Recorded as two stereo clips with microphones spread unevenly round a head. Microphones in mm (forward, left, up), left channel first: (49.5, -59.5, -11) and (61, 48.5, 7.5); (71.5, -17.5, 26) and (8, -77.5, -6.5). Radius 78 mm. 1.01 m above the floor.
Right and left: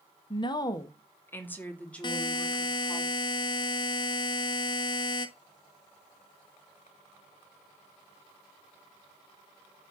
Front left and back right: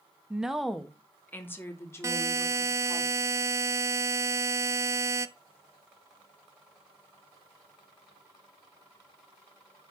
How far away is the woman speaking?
About 1.2 m.